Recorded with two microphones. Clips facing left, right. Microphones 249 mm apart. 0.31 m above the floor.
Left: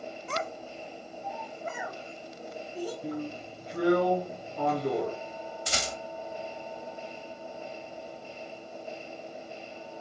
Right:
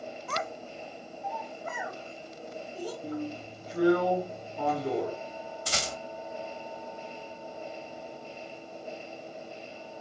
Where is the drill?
65° left (ahead or behind), 1.6 m.